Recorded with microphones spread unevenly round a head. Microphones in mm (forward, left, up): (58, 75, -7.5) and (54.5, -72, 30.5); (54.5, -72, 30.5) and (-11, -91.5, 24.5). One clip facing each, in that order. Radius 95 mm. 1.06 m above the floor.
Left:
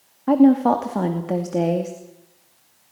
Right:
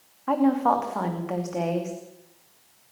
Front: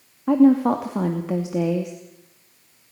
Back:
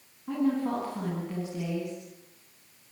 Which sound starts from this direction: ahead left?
A woman speaking, at 0.3 s.